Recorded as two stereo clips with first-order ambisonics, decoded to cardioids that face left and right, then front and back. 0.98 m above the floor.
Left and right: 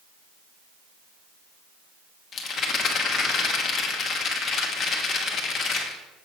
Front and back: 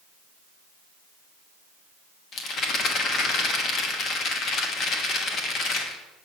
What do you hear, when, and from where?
2.3 s a rattle: 40° left, 1.1 m